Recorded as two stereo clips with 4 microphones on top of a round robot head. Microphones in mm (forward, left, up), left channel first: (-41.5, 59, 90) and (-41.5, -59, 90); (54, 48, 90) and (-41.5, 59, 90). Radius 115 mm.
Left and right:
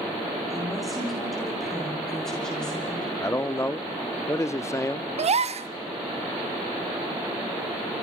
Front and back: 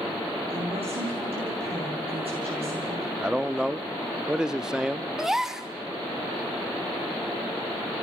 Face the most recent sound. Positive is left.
turn(degrees=-100)